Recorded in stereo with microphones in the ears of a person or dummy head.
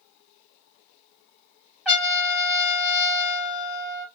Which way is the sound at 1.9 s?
Centre (ahead or behind).